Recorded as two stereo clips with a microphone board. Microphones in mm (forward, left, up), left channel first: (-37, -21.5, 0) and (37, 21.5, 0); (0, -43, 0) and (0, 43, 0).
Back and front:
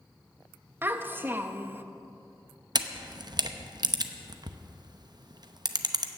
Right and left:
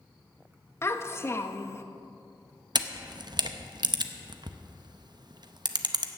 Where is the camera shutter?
60° left, 0.7 m.